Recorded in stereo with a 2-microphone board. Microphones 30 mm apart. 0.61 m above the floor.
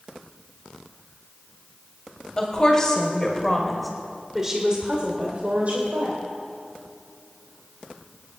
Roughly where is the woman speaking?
Left.